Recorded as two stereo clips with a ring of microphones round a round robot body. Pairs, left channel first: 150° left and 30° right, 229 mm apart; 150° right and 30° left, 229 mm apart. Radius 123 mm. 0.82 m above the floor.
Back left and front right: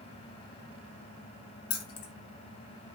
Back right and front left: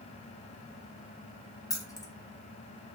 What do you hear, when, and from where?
1.7 s keys jangling: 135° left, 0.7 m